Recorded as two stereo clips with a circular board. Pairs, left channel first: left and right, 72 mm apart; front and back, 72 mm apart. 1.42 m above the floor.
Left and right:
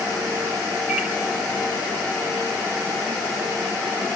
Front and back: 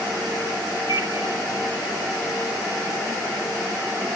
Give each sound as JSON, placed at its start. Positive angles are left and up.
{"t": 0.9, "sound": "a microwave", "azimuth_deg": -5, "distance_m": 2.0}